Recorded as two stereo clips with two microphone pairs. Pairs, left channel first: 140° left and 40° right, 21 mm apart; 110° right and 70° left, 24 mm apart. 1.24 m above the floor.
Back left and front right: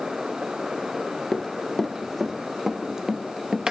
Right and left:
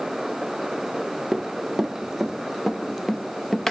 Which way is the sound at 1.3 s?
140° left.